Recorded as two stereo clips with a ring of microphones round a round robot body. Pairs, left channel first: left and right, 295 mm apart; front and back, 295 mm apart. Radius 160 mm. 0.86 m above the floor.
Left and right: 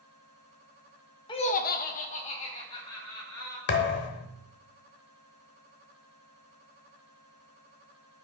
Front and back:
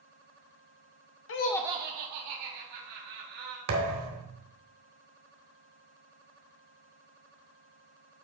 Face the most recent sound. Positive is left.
turn(degrees=145)